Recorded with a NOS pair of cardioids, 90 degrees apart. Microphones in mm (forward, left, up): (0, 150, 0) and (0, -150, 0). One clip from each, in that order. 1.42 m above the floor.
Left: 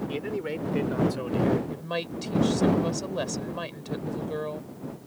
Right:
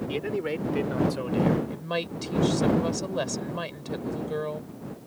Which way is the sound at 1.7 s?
10° right.